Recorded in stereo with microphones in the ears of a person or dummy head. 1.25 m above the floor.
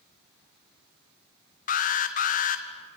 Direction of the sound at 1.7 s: 45° left (ahead or behind).